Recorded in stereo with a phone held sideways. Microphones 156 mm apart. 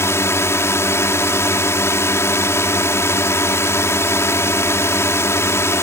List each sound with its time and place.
0.0 s a drone: 15° left (ahead or behind)